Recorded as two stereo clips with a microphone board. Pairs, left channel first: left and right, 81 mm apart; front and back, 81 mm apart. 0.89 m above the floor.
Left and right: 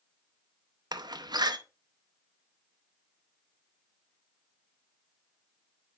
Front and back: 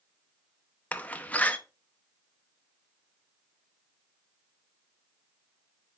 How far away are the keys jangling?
I don't hear keys jangling.